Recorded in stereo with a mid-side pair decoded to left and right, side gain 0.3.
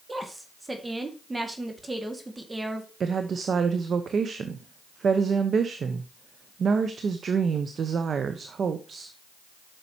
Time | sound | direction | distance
0.1 | a woman speaking | 25° right | 2.0 m
3.0 | a woman speaking | 65° right | 1.0 m